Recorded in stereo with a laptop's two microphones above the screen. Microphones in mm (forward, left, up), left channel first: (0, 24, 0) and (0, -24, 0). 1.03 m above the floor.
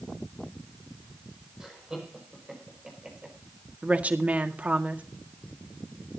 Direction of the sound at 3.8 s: 30° right (ahead or behind).